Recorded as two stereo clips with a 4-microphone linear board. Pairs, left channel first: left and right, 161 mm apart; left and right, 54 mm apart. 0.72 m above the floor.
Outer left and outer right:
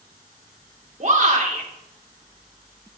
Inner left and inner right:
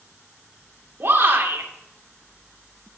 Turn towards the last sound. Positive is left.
turn(degrees=-45)  # may be behind; listen again after turning